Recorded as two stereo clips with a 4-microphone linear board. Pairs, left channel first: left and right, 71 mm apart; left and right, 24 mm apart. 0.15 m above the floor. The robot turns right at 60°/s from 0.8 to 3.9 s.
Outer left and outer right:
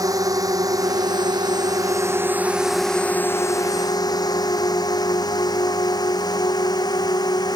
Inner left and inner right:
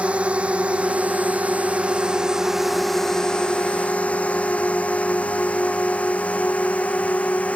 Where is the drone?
55° right (ahead or behind); by 7.6 s 70° left (ahead or behind).